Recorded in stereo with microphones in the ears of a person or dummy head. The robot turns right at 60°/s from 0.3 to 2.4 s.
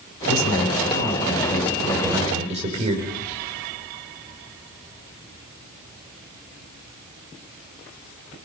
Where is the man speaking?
90° left, 6.5 m; by 3.1 s 145° right, 6.5 m.